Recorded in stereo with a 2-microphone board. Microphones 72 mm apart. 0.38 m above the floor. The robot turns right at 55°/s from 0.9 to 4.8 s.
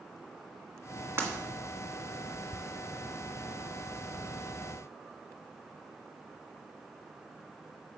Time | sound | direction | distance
1.2 | breaking glass | 40° right (ahead or behind) | 1.8 m